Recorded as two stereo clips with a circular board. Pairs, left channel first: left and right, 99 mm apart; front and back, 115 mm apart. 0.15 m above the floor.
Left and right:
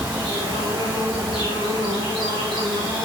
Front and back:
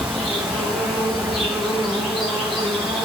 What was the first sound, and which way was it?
An insect, 95° left.